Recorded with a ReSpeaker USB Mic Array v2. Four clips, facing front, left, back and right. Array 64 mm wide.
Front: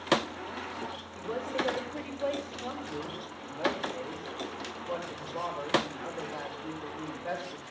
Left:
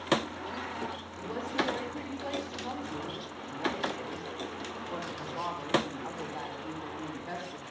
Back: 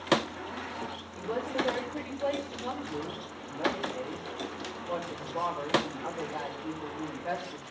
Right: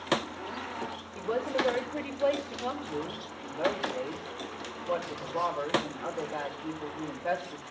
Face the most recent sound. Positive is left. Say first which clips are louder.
# right 4 dB, back 1 dB
turn(degrees=-85)